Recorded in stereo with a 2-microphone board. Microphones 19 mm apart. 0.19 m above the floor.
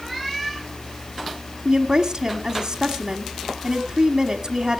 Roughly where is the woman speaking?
Right.